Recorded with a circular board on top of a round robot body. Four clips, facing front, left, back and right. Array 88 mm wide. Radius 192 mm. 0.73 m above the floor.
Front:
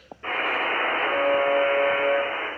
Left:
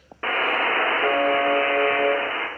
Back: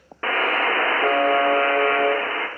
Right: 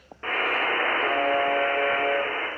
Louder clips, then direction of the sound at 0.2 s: Left 3 dB, back 5 dB; 150° left.